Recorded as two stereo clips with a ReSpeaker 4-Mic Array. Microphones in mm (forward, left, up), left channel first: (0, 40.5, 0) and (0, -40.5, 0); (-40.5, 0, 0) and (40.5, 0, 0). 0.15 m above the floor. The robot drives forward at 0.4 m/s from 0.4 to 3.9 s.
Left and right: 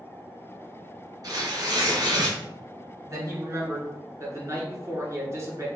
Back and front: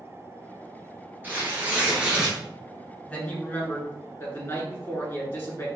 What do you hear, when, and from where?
1.2 s tearing paper: 65° right, 1.8 m; by 2.4 s 80° right, 1.7 m
3.1 s a man speaking: 115° right, 1.5 m; by 5.7 s 125° right, 1.6 m